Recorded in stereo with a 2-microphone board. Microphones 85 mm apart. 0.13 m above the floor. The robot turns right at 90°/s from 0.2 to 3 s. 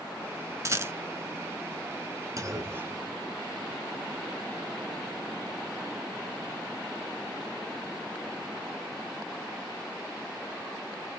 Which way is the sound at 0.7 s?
40° right (ahead or behind).